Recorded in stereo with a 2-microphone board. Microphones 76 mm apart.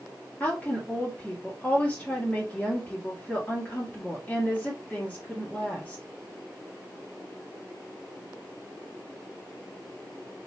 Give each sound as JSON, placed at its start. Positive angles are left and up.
{"t": 0.4, "sound": "a woman speaking", "side_deg": 20, "distance_m": 1.7}